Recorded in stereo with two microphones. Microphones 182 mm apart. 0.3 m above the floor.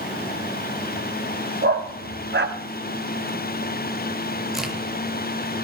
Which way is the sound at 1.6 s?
70° right (ahead or behind).